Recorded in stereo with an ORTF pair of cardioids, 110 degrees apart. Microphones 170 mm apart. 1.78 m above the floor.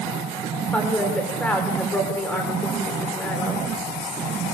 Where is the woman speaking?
10° left, 7 m.